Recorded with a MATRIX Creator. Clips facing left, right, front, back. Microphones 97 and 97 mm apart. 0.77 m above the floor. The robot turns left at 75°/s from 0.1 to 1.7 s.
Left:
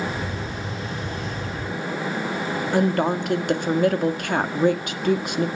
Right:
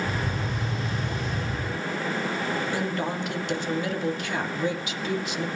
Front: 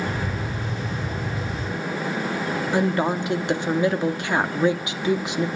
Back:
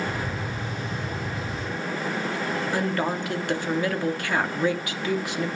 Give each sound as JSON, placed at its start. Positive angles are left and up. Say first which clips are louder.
{"t": 2.7, "sound": "a woman speaking", "louder": "left 7 dB, front 6 dB", "azimuth_deg": 70, "distance_m": 1.4}